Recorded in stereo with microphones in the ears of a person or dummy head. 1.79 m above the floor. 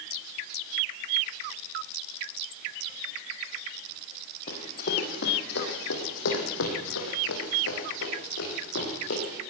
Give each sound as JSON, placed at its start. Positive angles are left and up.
{"t": 4.5, "sound": "running footsteps", "side_deg": 45, "distance_m": 4.0}